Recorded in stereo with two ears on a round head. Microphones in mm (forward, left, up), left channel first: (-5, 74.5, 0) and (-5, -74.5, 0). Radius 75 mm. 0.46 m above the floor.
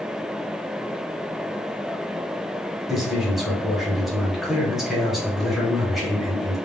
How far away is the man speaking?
About 1.1 m.